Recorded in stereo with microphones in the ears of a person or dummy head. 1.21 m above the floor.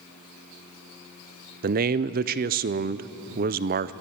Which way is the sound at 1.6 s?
40° right (ahead or behind).